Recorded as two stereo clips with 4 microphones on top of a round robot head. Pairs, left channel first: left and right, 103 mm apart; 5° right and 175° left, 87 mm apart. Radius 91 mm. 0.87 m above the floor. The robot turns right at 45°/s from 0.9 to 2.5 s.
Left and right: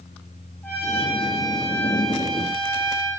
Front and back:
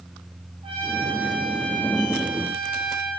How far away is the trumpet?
About 5 m.